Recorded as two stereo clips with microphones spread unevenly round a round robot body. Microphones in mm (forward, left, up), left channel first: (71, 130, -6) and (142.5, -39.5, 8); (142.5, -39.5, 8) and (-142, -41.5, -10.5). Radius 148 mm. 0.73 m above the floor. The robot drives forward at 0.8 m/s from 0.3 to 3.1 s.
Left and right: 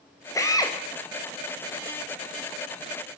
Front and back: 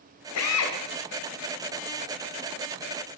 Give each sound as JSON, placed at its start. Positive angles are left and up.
{"t": 0.3, "sound": "a drill", "azimuth_deg": 40, "distance_m": 3.0}